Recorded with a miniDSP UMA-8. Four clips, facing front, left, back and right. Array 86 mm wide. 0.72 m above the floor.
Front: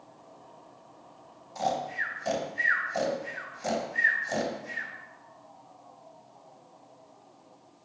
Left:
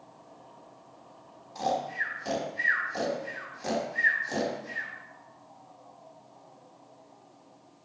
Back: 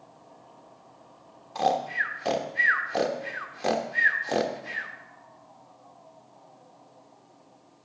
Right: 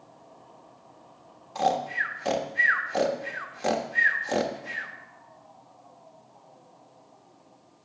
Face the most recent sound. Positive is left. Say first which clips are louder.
# right 4 dB, back 5 dB
turn(degrees=-145)